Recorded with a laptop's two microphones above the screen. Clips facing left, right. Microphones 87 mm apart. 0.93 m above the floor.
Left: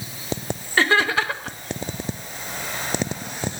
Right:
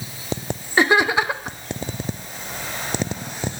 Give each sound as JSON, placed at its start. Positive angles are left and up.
{"t": 0.8, "sound": "laughter", "side_deg": -15, "distance_m": 0.6}